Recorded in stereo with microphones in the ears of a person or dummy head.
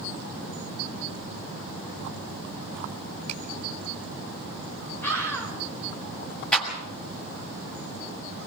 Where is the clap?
5° left (ahead or behind), 6.5 m.